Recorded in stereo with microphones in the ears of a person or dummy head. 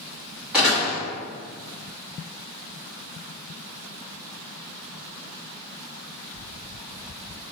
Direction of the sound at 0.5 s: 5° right (ahead or behind).